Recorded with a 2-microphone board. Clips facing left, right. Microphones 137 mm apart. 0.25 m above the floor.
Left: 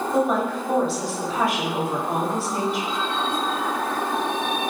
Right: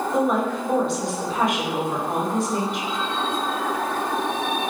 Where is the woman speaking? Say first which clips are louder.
Even; 5° left (ahead or behind), 1.4 m.